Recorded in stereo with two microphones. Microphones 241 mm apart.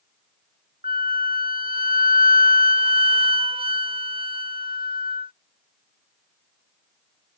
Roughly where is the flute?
Right.